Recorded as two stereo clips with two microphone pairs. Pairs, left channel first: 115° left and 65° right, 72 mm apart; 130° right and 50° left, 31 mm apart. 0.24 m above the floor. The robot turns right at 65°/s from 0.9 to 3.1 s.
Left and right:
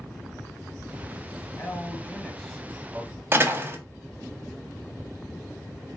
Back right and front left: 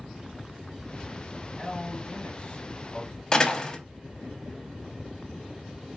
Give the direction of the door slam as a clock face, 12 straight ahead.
3 o'clock.